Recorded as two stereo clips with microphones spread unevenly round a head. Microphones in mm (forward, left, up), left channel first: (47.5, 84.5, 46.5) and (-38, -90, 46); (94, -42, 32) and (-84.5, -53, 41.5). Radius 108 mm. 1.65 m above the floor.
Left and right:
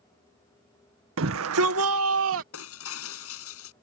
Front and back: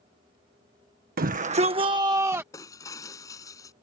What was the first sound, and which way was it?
A shout, 140° right.